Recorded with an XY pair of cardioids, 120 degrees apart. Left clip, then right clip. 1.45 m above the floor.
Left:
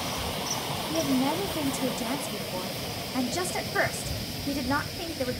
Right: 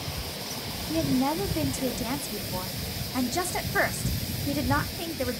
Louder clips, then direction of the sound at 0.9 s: Right 1 dB; 10° right.